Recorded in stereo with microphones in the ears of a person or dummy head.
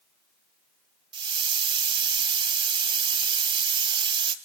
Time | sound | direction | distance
1.1 | a hiss | 30° right (ahead or behind) | 1.4 m